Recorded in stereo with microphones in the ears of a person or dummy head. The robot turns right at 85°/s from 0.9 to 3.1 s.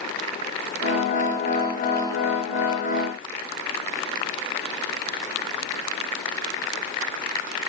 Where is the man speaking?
No man speaking in this recording.